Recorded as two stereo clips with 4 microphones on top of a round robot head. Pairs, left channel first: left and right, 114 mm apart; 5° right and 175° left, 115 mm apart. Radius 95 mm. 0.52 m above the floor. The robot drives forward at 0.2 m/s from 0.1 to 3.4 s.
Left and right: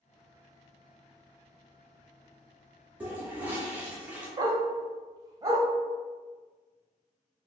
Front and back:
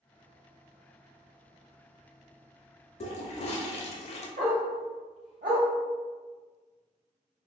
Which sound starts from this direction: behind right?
A dog barking, at 4.4 s.